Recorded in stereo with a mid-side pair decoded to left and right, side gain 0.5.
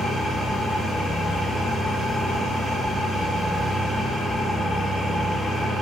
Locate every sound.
0.0 s an engine running: straight ahead, 7.5 m